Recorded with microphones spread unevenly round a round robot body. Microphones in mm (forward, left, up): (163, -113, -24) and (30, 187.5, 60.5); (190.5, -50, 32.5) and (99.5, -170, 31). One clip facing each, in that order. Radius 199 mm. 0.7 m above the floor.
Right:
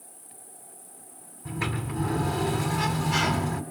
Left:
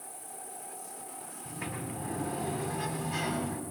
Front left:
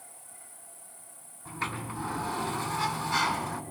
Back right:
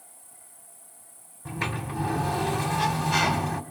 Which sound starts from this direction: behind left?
An insect, at 0.0 s.